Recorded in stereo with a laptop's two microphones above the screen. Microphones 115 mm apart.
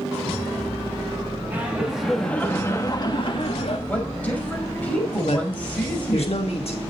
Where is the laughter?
15° right (ahead or behind), 3 m; by 3.8 s 60° left (ahead or behind), 3 m.